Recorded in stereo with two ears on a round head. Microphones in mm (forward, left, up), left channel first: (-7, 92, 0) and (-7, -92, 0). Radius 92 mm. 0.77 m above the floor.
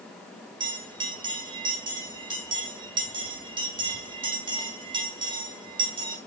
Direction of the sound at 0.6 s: 25° right (ahead or behind).